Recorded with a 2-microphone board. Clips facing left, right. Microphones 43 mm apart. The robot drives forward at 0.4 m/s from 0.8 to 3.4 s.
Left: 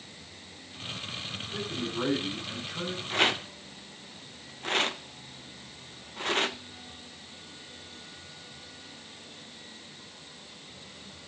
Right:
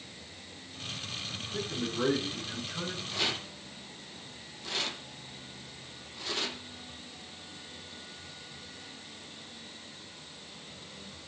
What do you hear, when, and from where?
1.5 s a man speaking: 20° left (ahead or behind), 7.5 m
3.1 s a rattle: 45° left (ahead or behind), 0.9 m